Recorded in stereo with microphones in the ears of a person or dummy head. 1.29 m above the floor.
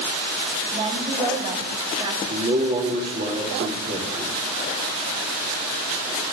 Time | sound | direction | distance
0.7 | a woman speaking | 30° right (ahead or behind) | 2.5 m
2.3 | a man speaking | 35° right (ahead or behind) | 2 m